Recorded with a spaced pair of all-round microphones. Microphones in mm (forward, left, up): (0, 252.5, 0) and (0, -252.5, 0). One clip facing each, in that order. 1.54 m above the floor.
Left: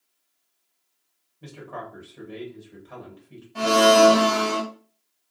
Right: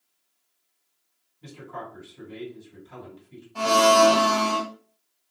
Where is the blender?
40° left (ahead or behind), 0.8 m.